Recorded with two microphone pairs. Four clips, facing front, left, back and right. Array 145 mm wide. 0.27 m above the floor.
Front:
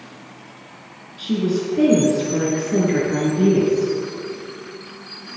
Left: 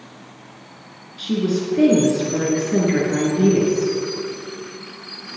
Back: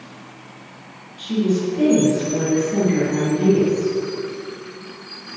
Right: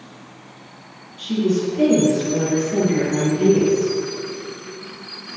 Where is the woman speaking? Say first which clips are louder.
Right 1 dB, back 1 dB; 45° left, 4.5 m.